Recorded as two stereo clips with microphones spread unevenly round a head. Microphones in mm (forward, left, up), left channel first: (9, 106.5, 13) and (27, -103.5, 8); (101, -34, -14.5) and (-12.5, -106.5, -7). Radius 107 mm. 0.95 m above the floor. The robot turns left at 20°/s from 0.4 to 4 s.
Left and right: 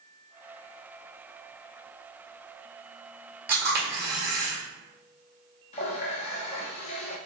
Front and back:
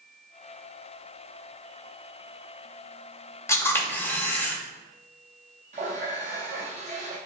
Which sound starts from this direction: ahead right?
A camera shutter, at 3.5 s.